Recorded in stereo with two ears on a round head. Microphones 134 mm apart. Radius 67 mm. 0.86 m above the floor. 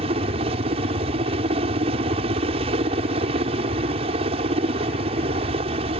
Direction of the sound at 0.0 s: 40° right (ahead or behind).